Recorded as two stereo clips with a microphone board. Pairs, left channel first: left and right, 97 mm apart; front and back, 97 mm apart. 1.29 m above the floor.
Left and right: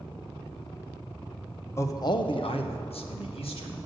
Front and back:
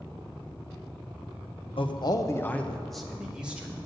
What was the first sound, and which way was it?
A man speaking, 25° left.